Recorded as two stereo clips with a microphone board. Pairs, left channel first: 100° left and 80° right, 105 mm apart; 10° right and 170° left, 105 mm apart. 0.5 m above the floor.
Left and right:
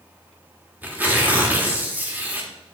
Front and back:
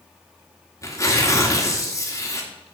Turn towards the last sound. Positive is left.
turn(degrees=-25)